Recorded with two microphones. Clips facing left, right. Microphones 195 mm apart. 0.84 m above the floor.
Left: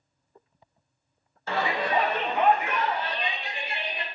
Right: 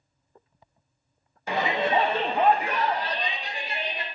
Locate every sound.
1.5 s a shout: 15° right (ahead or behind), 0.6 m; by 4.0 s 40° right (ahead or behind), 1.7 m